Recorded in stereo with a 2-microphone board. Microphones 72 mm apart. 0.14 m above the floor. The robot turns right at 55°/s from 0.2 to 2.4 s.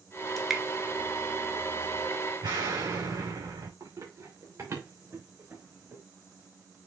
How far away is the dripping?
About 1.2 m.